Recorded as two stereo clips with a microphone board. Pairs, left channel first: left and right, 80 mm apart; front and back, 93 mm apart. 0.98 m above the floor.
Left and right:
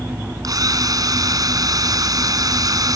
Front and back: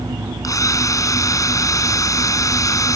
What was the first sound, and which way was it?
A drill, 50° right.